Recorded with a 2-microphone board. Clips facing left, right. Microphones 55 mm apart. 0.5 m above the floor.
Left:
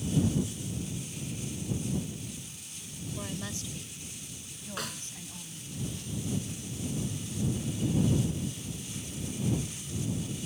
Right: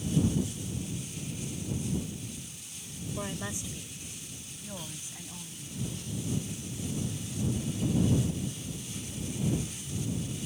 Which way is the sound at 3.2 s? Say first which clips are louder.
Right 2 dB; 20° right (ahead or behind).